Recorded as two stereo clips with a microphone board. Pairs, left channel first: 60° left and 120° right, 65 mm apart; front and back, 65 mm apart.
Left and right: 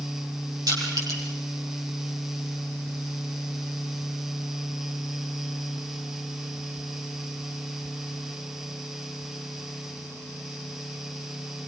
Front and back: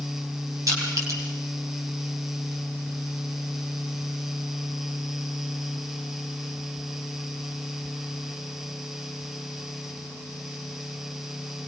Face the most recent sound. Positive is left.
turn(degrees=-145)